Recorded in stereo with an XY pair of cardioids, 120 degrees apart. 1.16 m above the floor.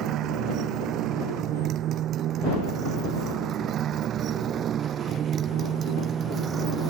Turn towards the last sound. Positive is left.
turn(degrees=-40)